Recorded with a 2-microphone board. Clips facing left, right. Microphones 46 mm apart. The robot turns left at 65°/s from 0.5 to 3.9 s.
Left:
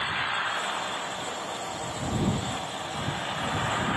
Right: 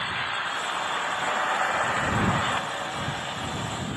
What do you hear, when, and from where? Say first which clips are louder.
0.0 s an engine running: even; 5° left; by 4.0 s 140° left